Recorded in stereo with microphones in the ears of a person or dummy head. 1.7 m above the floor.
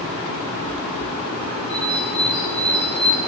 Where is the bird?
20° right (ahead or behind), 2.5 m.